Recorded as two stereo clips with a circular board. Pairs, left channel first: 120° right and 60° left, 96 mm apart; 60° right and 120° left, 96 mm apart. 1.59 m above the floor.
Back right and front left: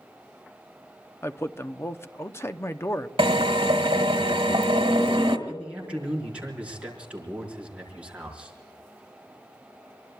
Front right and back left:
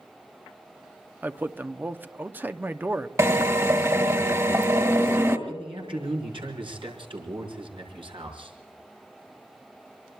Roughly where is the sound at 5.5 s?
Behind left.